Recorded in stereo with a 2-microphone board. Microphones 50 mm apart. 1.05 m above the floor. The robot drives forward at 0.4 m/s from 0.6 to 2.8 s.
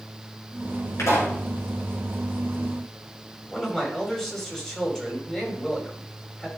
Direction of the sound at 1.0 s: 70° left (ahead or behind).